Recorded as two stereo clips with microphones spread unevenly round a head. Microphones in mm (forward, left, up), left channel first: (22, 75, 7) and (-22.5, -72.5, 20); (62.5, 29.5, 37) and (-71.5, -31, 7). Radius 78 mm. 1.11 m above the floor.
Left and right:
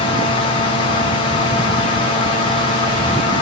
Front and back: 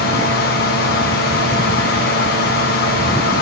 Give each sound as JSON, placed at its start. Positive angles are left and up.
{"t": 0.0, "sound": "a fan", "azimuth_deg": 25, "distance_m": 2.5}